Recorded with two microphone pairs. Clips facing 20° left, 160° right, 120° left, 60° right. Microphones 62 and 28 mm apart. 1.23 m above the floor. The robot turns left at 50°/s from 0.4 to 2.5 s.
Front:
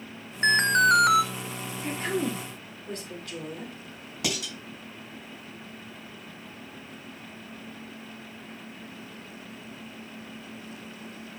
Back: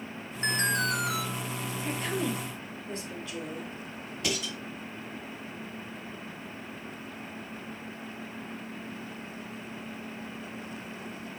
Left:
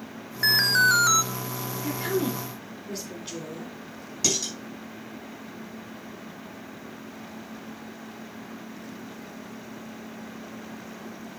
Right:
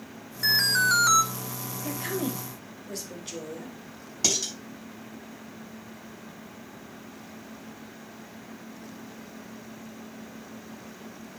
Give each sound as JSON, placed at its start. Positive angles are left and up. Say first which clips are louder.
{"t": 0.4, "sound": "an alarm", "louder": "front 8 dB, left 3 dB", "azimuth_deg": 65, "distance_m": 0.7}
{"t": 1.8, "sound": "a woman speaking", "louder": "front 3 dB, left 4 dB", "azimuth_deg": 75, "distance_m": 3.0}
{"t": 4.2, "sound": "dishes clattering", "louder": "front 1 dB, even", "azimuth_deg": 20, "distance_m": 5.5}